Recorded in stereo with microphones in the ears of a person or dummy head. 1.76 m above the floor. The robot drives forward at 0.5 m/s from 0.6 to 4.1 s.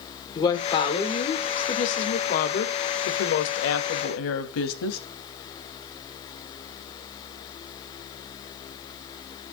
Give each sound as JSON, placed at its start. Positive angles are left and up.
{"t": 0.3, "sound": "a woman speaking", "side_deg": 30, "distance_m": 1.9}